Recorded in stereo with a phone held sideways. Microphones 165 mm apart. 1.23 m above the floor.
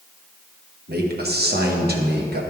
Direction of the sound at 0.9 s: 70° right (ahead or behind).